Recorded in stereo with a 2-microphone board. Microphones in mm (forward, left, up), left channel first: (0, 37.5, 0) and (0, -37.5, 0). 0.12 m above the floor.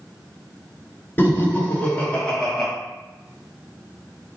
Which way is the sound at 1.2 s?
30° left (ahead or behind).